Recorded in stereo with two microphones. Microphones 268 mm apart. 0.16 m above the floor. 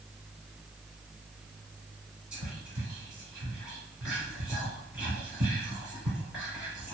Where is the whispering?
5° right (ahead or behind), 1.3 m.